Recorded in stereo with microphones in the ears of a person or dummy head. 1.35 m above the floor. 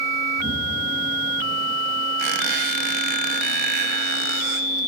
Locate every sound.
0.4 s an explosion: 60° right (ahead or behind), 5 m
2.2 s a squeak: 60° right (ahead or behind), 1.1 m